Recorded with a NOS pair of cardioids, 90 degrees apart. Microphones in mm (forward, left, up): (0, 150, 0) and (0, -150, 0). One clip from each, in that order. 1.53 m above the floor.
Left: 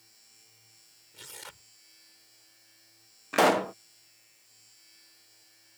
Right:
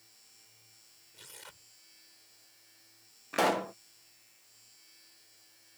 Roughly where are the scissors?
No scissors in this recording.